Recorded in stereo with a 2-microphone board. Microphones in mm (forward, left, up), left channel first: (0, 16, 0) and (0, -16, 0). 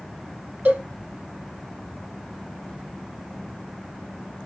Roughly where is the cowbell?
Right.